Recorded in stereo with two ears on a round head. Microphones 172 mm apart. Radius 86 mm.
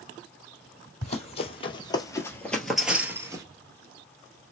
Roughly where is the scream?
I don't hear a scream.